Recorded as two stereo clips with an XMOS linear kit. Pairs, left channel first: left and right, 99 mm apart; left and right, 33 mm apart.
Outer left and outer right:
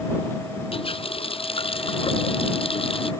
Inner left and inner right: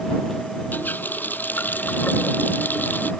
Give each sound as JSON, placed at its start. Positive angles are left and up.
{"t": 0.7, "sound": "a running tap", "side_deg": 70}